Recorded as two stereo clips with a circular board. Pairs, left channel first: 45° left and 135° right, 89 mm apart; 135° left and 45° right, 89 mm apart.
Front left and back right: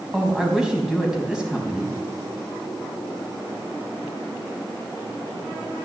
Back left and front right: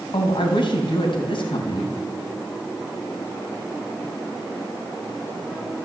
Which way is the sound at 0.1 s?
145° left.